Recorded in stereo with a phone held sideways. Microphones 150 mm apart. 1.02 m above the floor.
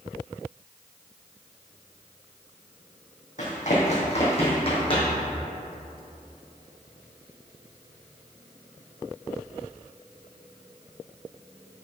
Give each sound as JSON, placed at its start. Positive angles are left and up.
{"t": 3.4, "sound": "running footsteps", "side_deg": 55, "distance_m": 2.5}